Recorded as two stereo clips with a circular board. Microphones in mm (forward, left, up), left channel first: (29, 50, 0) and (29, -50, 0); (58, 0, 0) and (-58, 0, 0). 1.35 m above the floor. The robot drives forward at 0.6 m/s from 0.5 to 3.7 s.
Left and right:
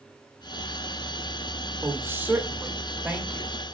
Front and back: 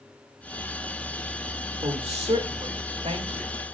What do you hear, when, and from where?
1.8 s a woman speaking: 155° right, 1.7 m; by 3.5 s 165° right, 2.5 m